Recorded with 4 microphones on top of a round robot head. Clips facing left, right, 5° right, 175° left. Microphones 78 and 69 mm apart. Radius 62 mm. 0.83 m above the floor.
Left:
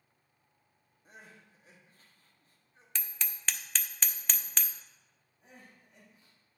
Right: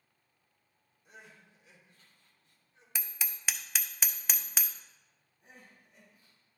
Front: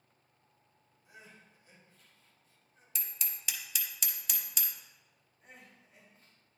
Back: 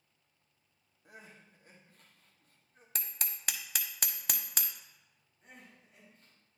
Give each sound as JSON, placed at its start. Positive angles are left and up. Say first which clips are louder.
{"t": 1.1, "sound": "crying", "louder": "even, back 2 dB", "azimuth_deg": 140, "distance_m": 1.4}
{"t": 3.0, "sound": "hammering", "louder": "even, back 2 dB", "azimuth_deg": -170, "distance_m": 0.6}
{"t": 5.4, "sound": "crying", "louder": "left 1 dB, even", "azimuth_deg": 80, "distance_m": 3.5}